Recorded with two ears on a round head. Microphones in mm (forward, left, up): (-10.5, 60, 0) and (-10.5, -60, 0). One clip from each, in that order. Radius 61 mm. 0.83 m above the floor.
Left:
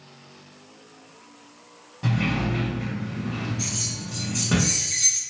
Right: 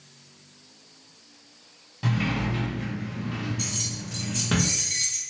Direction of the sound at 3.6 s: 30° right (ahead or behind).